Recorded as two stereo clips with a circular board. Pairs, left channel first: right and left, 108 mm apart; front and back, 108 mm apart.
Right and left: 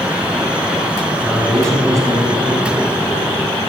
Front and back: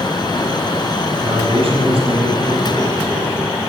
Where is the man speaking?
165° left, 1.7 m; by 3.3 s 140° left, 4 m.